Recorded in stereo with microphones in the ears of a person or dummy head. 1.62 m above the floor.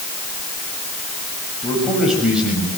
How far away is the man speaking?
About 8.5 m.